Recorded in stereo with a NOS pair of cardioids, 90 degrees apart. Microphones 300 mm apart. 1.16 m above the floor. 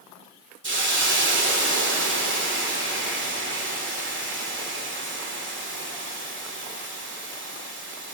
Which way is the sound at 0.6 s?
40° right.